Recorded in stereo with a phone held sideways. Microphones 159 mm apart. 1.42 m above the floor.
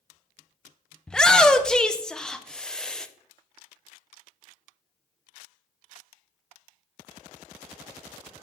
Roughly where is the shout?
Centre.